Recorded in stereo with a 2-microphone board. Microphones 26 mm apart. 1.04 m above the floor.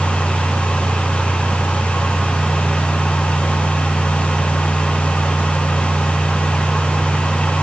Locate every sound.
Only background noise.